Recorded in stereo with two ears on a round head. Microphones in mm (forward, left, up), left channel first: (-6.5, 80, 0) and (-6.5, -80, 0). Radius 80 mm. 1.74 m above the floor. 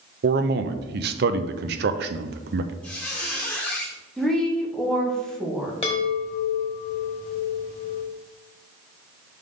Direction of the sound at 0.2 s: 60° right (ahead or behind).